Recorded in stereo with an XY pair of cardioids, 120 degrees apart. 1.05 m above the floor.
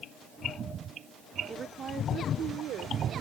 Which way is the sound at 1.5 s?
35° right.